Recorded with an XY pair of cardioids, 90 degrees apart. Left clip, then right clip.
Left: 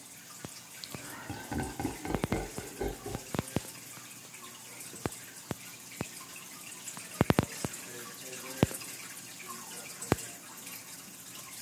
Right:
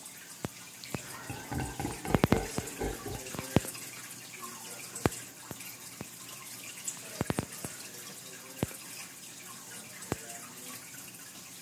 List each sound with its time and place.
0.8 s laughter: 30° left, 0.6 m; by 3.3 s 15° right, 2.5 m